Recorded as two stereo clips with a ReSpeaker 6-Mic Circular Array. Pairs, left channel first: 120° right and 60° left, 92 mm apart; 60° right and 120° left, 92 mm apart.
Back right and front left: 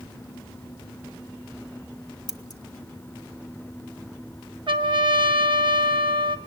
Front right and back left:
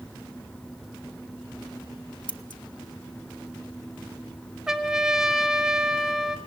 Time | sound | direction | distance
2.3 | scissors | 80° right | 0.8 m
4.7 | a trumpet | 35° left | 0.9 m